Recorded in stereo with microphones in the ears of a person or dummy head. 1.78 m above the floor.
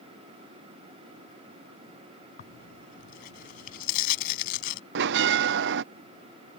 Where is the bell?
65° right (ahead or behind).